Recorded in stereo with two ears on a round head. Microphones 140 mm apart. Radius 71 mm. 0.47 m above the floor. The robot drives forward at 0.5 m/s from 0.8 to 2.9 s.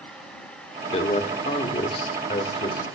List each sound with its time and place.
0.9 s a man speaking: 35° left (ahead or behind), 1.0 m; by 2.9 s 25° left (ahead or behind), 1.3 m